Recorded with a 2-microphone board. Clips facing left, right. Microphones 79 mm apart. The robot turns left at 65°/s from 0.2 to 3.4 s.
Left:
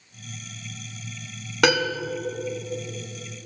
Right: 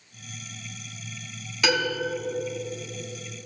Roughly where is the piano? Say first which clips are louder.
Left 4 dB; left.